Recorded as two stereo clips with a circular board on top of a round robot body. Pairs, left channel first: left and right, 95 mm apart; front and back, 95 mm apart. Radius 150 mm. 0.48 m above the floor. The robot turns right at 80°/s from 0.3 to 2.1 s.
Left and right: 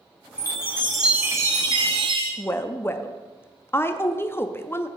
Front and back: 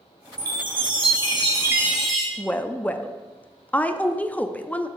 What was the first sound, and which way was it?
A chime, 135° left.